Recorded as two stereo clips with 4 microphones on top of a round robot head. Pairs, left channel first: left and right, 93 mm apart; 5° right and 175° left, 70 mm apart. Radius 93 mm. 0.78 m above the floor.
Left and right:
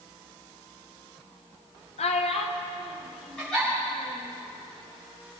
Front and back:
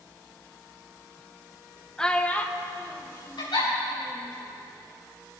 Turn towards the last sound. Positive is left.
turn(degrees=5)